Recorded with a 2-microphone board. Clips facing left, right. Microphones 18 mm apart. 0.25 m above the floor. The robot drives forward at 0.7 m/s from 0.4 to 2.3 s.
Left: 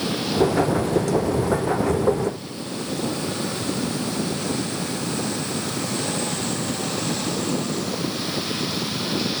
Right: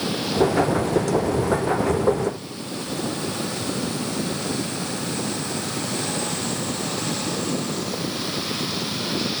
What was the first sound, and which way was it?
Only background noise.